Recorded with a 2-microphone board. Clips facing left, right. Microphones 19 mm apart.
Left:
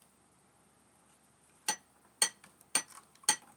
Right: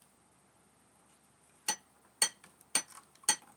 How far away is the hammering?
About 2.0 m.